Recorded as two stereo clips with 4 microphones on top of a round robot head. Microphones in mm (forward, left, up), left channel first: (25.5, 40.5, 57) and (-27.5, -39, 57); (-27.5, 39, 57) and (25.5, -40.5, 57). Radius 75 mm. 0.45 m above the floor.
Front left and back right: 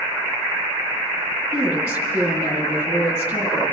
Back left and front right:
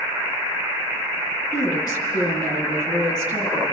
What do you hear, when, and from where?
1.5 s a woman speaking: 175° left, 4.5 m